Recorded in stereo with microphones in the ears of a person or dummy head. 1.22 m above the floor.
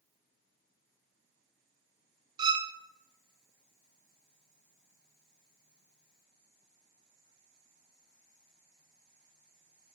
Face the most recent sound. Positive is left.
turn(degrees=-25)  # may be behind; listen again after turning